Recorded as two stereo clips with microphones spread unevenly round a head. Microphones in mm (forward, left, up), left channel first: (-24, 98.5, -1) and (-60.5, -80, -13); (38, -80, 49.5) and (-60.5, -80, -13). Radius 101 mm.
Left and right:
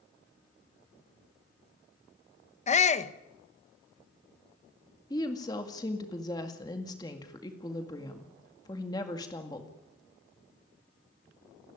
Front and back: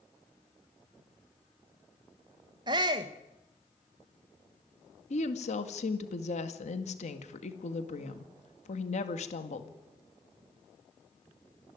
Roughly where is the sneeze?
No sneeze in this recording.